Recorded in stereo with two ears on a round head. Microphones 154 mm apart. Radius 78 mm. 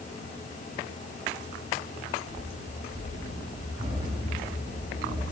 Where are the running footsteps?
45° right (ahead or behind), 5 m; by 5.2 s 20° right (ahead or behind), 7 m.